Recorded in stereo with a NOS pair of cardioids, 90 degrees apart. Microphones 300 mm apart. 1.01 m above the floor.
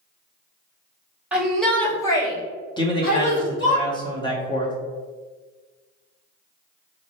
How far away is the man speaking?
About 1.5 m.